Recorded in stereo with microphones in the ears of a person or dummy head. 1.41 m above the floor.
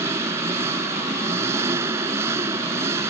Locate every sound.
0.0 s an engine running: 15° right (ahead or behind)